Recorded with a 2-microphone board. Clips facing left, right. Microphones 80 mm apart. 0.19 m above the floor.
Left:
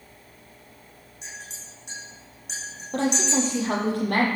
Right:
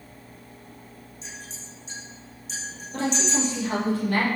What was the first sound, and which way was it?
A clink, 65° left (ahead or behind).